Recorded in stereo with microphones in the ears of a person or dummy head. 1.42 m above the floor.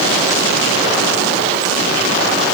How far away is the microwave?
I don't hear a microwave.